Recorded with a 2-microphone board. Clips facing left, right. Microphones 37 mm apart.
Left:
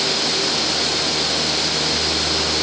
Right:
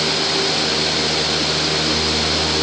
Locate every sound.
Only background noise.